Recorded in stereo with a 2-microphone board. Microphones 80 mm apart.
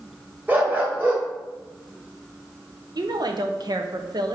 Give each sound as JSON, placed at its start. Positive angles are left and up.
{"t": 0.5, "sound": "a dog barking", "side_deg": -25, "distance_m": 1.7}
{"t": 3.0, "sound": "a woman speaking", "side_deg": -55, "distance_m": 0.9}